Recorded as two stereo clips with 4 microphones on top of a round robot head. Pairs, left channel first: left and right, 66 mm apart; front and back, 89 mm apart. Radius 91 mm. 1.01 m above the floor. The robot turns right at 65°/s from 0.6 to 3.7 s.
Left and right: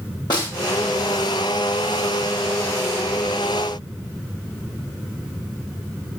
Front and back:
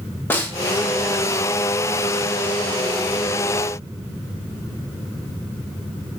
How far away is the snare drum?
About 1.6 m.